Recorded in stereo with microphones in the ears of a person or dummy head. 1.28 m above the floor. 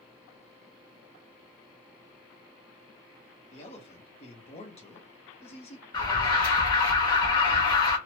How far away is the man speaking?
About 0.8 m.